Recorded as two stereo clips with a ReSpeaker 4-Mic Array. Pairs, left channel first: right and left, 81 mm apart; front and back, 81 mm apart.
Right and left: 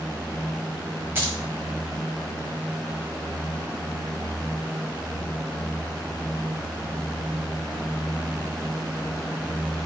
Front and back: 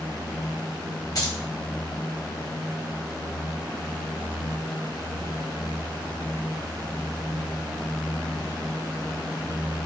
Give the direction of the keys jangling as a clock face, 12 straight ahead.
11 o'clock.